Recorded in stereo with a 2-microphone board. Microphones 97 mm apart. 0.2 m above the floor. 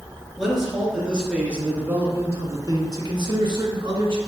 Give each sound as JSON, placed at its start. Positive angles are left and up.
{"t": 0.4, "sound": "a man speaking", "side_deg": 0, "distance_m": 2.5}